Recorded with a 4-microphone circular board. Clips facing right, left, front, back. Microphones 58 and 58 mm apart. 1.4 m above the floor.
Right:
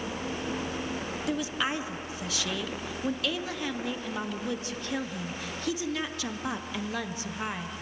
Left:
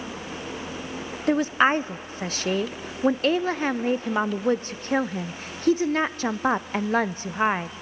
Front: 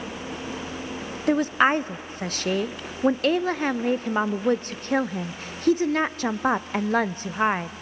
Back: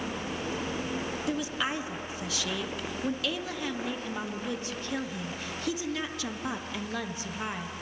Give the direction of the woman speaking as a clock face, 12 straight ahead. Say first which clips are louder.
Left 11 dB, front 14 dB; 11 o'clock.